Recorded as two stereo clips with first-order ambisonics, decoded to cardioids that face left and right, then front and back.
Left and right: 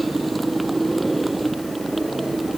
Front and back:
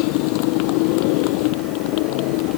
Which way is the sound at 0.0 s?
10° right.